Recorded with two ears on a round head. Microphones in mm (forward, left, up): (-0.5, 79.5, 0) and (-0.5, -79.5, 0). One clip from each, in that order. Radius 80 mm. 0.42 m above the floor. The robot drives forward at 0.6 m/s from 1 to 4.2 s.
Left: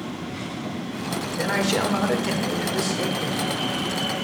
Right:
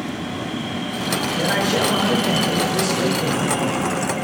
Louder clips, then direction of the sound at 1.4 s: Right 2 dB; 35° left (ahead or behind).